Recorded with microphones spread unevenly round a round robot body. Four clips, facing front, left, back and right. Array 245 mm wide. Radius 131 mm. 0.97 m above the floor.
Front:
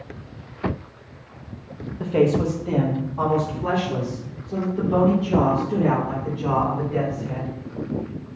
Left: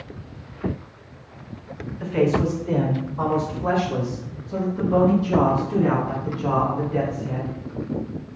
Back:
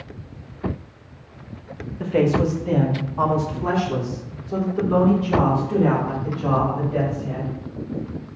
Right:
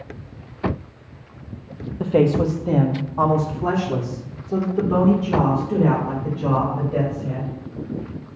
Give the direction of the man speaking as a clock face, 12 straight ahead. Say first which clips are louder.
Right 3 dB, even; 3 o'clock.